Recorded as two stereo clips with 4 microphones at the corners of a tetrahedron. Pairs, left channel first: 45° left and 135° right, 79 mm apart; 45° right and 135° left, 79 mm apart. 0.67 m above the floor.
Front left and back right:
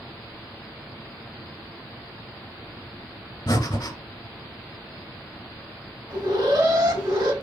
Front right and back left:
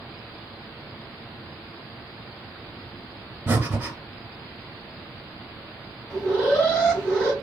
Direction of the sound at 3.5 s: 70° left.